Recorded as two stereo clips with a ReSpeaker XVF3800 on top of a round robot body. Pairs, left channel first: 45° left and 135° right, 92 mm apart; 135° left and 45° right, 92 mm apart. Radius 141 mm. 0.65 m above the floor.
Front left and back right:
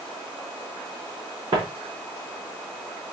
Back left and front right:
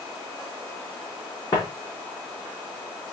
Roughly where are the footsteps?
Behind.